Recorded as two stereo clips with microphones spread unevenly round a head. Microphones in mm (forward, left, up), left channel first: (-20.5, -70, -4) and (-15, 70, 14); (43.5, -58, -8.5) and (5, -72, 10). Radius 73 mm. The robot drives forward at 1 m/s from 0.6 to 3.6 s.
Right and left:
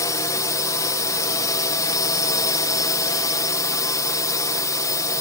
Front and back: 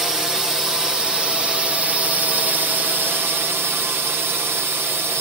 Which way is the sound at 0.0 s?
50° right.